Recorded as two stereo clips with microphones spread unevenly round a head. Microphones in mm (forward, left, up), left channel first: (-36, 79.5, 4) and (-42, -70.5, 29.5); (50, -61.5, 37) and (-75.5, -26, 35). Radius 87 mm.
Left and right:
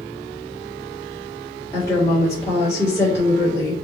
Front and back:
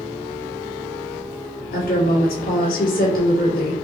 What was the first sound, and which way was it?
A woman speaking, 10° left.